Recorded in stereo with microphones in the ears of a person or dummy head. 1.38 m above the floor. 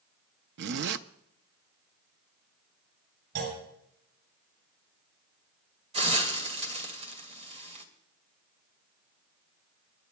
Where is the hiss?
35° right (ahead or behind), 2 m.